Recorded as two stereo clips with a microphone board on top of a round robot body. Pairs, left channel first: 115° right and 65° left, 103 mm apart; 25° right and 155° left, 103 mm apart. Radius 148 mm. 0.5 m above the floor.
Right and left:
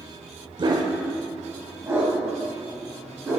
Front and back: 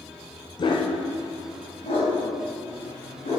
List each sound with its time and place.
0.6 s a dog barking: 25° left, 0.9 m; by 3.4 s 10° right, 3.5 m